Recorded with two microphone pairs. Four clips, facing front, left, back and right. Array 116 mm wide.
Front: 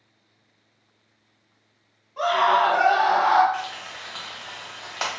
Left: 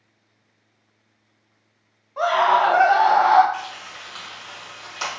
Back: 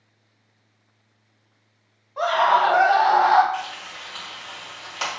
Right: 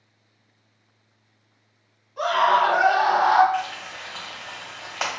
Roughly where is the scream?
Behind left.